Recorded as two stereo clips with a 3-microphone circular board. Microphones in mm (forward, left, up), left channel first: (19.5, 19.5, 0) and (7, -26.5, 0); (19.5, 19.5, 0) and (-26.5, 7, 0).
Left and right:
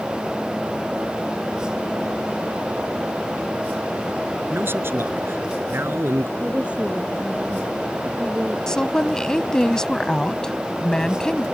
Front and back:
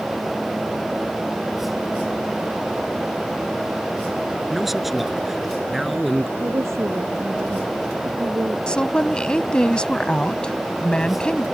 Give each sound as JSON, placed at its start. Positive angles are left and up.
{"t": 4.5, "sound": "a man speaking", "azimuth_deg": -80}
{"t": 6.4, "sound": "a woman speaking", "azimuth_deg": -170}
{"t": 8.7, "sound": "a woman speaking", "azimuth_deg": 30}